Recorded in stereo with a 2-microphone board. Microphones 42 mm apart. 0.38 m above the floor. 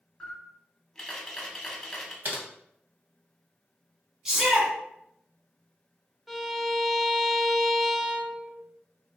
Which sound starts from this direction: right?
Typing on a keyboard, at 2.2 s.